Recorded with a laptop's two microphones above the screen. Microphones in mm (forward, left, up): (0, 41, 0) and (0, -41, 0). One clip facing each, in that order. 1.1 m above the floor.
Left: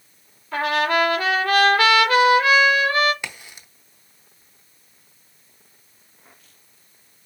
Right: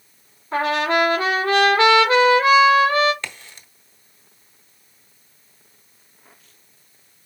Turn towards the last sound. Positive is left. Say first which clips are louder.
# even
turn(degrees=15)  # may be behind; listen again after turning